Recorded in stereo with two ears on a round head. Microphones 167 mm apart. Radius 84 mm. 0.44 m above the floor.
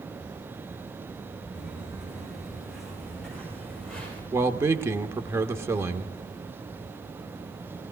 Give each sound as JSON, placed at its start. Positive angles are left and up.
{"t": 1.5, "sound": "footsteps", "side_deg": -10, "distance_m": 6.0}
{"t": 4.3, "sound": "a man speaking", "side_deg": -15, "distance_m": 0.8}